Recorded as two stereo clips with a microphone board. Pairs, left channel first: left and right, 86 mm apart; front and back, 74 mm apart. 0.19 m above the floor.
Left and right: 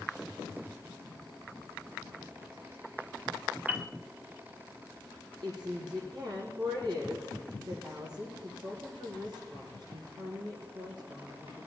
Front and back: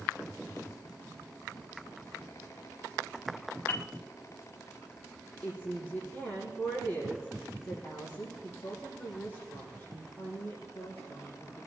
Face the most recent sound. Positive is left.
turn(degrees=-70)